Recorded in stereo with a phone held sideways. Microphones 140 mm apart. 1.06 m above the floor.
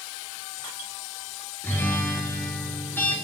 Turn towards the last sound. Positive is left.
turn(degrees=15)  # may be behind; listen again after turning